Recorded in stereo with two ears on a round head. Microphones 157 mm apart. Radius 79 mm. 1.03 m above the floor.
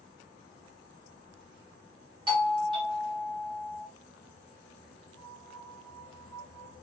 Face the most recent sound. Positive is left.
turn(degrees=5)  # may be behind; listen again after turning